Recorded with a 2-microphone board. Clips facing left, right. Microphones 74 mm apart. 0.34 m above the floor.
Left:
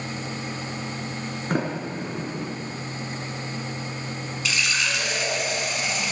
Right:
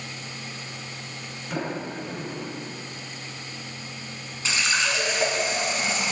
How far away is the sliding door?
About 4 m.